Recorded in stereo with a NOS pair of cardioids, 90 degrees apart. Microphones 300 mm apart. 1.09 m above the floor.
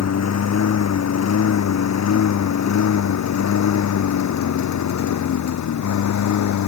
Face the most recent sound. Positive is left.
turn(degrees=70)